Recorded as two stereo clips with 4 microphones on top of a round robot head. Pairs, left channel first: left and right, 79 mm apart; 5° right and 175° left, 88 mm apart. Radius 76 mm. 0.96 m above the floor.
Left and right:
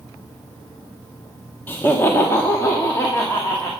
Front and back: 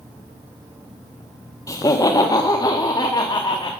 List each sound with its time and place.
1.7 s laughter: 30° left, 0.8 m; by 3.7 s 35° left, 1.7 m